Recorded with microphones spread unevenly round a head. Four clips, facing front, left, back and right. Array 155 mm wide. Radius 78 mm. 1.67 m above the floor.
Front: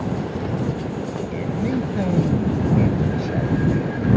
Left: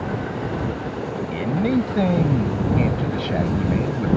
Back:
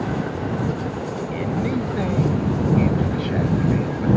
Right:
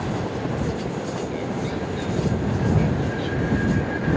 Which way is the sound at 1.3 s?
70° left.